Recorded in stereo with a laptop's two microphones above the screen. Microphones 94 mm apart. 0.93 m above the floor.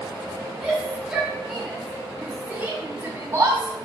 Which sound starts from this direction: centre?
A shout, at 0.6 s.